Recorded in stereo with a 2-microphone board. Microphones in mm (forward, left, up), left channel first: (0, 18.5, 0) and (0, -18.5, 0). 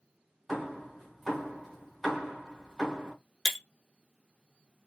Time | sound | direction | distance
0.5 | hammering | 5° right (ahead or behind) | 3 m
3.5 | breaking glass | centre (ahead or behind) | 0.8 m